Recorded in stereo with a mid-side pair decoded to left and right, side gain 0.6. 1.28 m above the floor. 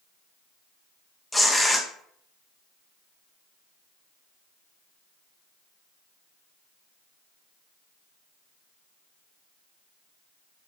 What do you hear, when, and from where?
1.3 s tearing paper: 5° left, 0.6 m